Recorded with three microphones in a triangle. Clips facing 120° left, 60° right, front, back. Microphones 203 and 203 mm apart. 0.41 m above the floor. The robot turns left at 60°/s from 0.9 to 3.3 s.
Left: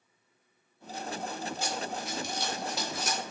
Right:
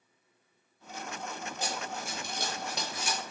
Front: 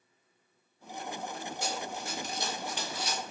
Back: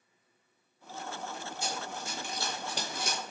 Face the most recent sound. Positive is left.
turn(degrees=135)